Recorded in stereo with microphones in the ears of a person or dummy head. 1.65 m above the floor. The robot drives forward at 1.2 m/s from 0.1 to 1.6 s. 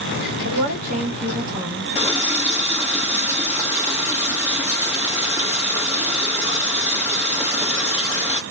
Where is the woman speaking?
50° right (ahead or behind), 1.6 m; by 1.9 s 25° right (ahead or behind), 2.5 m.